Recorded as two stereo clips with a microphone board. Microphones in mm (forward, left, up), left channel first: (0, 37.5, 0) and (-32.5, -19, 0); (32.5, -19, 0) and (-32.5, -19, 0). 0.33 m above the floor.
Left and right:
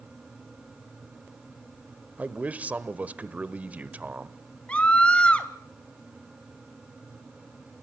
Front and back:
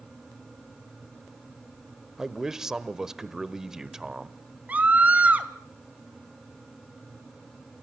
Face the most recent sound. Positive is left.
turn(degrees=125)